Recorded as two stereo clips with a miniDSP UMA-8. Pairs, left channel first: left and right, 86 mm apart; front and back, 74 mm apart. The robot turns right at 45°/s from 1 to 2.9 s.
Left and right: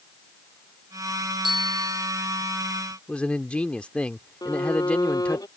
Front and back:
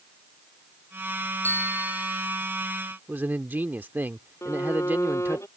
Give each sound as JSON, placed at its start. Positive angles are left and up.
{"t": 1.4, "sound": "a bicycle bell", "azimuth_deg": -65}
{"t": 3.1, "sound": "a man speaking", "azimuth_deg": 155}
{"t": 4.4, "sound": "a violin", "azimuth_deg": 50}